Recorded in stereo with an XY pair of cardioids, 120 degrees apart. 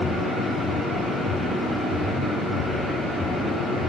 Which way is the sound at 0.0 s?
20° right.